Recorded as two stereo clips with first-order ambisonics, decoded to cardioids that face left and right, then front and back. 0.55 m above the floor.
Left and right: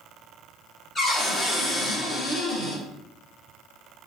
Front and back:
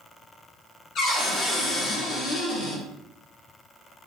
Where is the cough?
No cough in this recording.